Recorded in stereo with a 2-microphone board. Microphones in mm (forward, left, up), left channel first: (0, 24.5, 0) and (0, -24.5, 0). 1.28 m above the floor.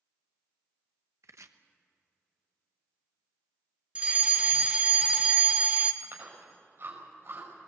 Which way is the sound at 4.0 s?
25° right (ahead or behind).